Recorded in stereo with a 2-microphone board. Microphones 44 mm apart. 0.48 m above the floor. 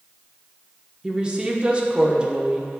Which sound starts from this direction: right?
A woman speaking, at 1.0 s.